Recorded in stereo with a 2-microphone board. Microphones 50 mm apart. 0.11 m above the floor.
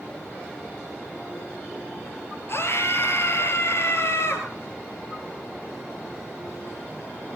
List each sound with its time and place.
2.5 s a scream: 50° left (ahead or behind), 1.9 m